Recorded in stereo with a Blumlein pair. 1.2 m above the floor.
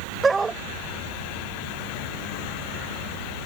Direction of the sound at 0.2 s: 15° right.